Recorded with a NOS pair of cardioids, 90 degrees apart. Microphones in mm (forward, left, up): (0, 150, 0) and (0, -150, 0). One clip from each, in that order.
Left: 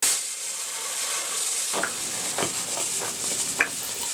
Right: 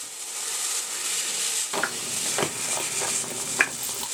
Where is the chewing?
10° right, 0.6 m.